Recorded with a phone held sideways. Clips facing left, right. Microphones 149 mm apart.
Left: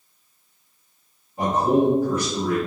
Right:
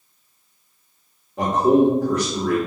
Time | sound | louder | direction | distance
1.4 | a man speaking | right 3 dB | 85° right | 1.5 m